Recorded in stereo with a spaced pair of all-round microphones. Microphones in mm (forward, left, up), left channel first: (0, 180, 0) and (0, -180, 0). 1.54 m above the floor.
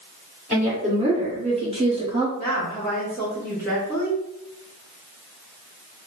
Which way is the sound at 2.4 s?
5° left (ahead or behind).